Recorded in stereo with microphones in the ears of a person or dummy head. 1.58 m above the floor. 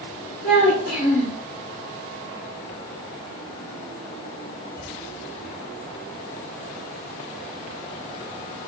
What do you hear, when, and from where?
0.4 s a child speaking: 60° left (ahead or behind), 3.5 m